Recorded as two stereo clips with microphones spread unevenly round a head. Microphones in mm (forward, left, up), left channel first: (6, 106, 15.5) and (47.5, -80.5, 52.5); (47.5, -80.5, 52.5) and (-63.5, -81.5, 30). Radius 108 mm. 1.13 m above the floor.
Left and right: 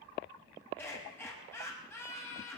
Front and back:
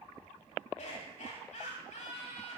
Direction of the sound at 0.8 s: 25° left.